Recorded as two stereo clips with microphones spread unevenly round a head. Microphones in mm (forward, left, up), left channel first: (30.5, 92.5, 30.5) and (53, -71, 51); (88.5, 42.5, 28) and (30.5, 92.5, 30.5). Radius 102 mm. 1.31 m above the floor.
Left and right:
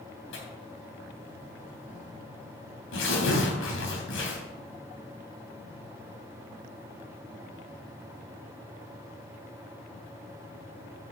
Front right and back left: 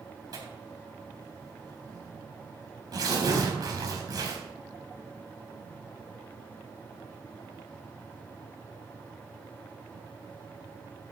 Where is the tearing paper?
110° left, 3 m.